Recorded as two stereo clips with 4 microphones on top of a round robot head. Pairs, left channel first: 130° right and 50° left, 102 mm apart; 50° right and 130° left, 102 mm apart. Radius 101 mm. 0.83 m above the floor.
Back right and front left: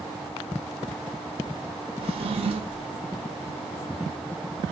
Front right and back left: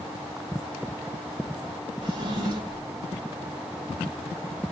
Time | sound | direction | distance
2.0 | a drawer | 80° left | 0.9 m